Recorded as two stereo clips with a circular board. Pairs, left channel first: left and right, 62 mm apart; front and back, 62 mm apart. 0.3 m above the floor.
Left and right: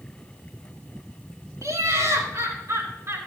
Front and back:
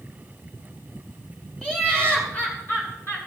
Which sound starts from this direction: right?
Laughter, at 1.6 s.